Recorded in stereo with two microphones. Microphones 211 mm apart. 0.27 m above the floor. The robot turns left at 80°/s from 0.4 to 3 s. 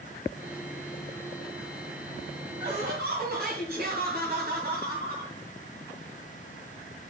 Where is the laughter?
80° right, 2.0 m; by 5.3 s 110° right, 2.0 m.